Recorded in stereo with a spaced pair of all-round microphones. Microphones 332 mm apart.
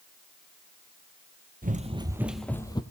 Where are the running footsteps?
25° right (ahead or behind), 1.4 m; by 2.8 s 15° left (ahead or behind), 1.6 m.